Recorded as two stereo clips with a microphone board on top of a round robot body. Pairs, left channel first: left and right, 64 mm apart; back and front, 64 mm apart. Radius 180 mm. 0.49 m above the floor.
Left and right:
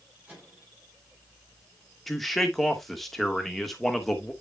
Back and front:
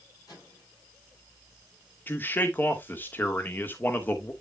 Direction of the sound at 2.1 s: 175° left.